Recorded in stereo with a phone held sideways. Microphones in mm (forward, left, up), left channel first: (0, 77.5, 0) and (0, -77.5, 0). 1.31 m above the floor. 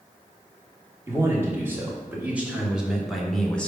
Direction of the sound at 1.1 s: 20° right (ahead or behind).